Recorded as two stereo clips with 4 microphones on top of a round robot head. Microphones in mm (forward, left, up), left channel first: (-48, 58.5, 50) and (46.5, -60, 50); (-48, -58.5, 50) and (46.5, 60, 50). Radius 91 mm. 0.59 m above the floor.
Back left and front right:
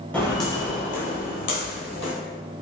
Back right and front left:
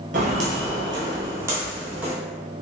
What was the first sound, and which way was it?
Footsteps, 50° left.